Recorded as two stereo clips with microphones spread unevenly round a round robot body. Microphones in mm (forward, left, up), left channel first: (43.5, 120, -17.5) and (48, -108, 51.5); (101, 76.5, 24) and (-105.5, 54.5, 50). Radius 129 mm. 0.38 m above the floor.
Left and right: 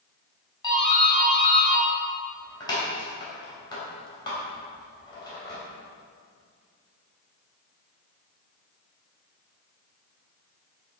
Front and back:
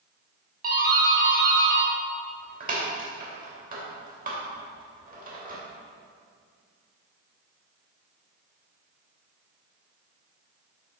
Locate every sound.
0.6 s a doorbell: 145° left, 3 m